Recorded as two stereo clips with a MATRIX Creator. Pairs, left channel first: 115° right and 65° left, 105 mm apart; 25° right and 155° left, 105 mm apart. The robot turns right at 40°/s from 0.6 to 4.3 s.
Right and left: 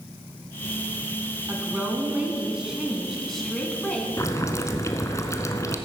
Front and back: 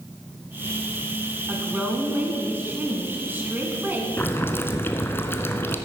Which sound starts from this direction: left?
A woman speaking, at 1.5 s.